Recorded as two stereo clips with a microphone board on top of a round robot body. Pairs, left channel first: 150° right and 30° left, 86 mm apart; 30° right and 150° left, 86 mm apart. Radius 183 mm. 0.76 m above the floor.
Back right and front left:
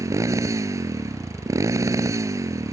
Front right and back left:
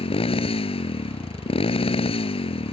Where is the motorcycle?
30° right.